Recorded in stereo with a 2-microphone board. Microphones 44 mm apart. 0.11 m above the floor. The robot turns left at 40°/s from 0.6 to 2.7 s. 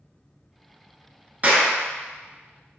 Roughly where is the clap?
Right.